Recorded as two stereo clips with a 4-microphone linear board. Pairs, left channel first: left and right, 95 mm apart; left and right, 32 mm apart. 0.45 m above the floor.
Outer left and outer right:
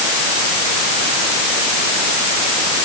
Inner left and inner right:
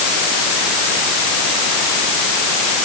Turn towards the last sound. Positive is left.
No sound to turn to.